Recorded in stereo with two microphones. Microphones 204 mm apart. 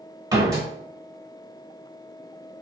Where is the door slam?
20° right (ahead or behind), 1.0 m.